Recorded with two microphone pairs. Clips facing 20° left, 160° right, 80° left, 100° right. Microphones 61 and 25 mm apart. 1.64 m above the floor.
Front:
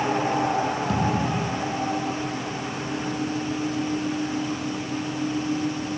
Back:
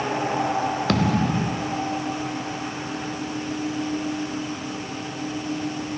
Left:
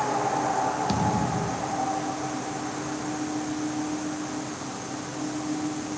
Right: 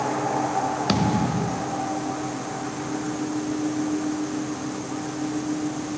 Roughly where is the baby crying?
I don't hear a baby crying.